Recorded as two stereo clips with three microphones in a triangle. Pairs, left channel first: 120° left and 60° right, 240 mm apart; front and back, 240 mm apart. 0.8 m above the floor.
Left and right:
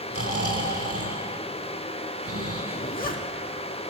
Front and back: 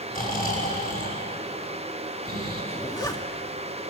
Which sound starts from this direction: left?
A zipper, at 2.7 s.